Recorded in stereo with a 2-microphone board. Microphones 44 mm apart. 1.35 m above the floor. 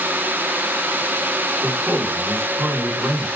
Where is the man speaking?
70° right (ahead or behind), 4 m.